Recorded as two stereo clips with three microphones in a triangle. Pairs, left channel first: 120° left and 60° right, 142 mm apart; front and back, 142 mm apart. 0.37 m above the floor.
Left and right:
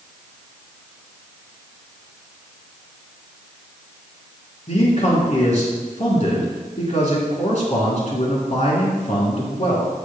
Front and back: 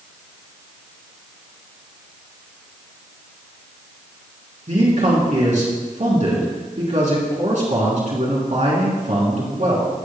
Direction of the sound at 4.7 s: 155° left.